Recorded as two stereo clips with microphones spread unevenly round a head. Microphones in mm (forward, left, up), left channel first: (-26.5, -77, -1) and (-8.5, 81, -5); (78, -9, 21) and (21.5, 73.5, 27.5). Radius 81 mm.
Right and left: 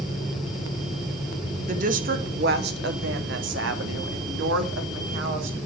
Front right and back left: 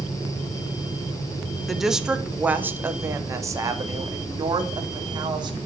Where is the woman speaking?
35° left, 1.7 m; by 5.6 s 80° left, 3.5 m.